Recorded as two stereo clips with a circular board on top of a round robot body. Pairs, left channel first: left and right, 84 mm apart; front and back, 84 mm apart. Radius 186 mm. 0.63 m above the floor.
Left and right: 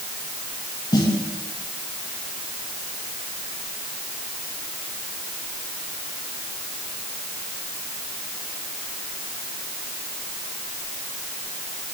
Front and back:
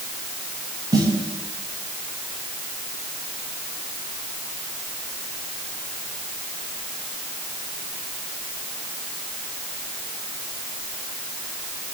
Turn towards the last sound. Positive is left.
turn(degrees=135)